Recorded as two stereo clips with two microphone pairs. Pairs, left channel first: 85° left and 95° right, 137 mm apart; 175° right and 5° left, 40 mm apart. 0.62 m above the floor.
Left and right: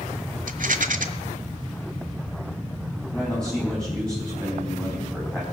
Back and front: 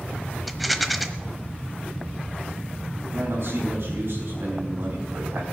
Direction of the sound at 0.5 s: 80° right.